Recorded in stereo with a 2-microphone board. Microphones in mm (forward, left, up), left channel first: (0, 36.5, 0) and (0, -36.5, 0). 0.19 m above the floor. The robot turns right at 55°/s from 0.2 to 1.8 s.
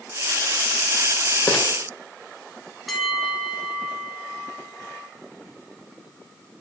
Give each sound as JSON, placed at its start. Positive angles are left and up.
{"t": 1.5, "sound": "crumpling", "side_deg": 20, "distance_m": 6.5}
{"t": 2.9, "sound": "a bell", "side_deg": 0, "distance_m": 2.5}